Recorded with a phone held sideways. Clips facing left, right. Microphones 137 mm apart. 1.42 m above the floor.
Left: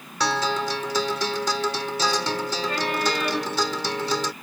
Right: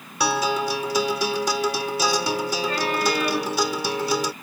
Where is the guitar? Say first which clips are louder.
Right 2 dB; 10° right (ahead or behind).